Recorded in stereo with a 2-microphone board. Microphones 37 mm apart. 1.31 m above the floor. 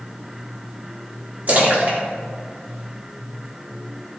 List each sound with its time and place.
1.5 s a splash: 50° right (ahead or behind), 3 m